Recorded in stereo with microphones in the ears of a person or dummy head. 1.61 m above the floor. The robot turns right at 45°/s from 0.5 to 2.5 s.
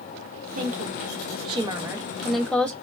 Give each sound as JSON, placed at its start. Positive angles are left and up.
{"t": 0.6, "sound": "a woman speaking", "azimuth_deg": -75, "distance_m": 0.6}